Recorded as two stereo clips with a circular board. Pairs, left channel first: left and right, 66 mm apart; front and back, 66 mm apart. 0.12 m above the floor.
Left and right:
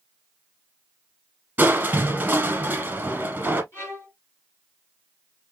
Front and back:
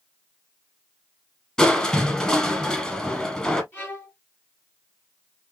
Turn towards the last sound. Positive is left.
turn(degrees=50)